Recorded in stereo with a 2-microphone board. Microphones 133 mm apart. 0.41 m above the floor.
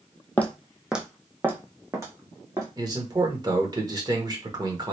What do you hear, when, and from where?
0.4 s footsteps: 15° left (ahead or behind), 0.5 m; by 2.7 s 25° right (ahead or behind), 1.5 m
2.8 s a man speaking: 30° right (ahead or behind), 1.0 m